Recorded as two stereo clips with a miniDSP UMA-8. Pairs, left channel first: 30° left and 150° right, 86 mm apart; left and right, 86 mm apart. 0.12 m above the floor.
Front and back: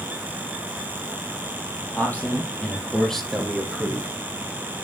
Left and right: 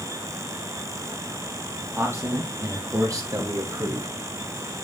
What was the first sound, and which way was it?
A man speaking, 40° right.